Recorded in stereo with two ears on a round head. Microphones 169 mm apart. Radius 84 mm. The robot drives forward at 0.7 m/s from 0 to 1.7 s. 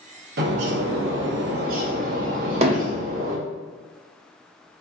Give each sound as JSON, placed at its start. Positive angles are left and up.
{"t": 0.4, "sound": "a bird", "side_deg": -55, "distance_m": 0.8}
{"t": 2.6, "sound": "hammering", "side_deg": -35, "distance_m": 0.6}